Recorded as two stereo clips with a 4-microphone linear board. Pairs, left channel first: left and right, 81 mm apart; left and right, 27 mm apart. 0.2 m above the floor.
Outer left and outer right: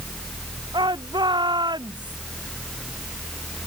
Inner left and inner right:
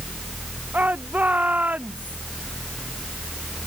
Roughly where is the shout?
Right.